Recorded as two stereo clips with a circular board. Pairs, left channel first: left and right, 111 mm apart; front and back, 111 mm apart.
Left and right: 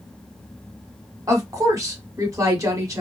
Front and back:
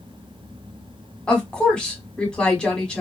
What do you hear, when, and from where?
1.3 s a woman speaking: 75° right, 1.1 m